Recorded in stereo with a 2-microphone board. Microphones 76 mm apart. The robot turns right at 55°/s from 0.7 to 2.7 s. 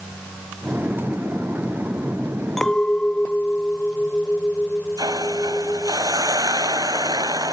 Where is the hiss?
60° right (ahead or behind).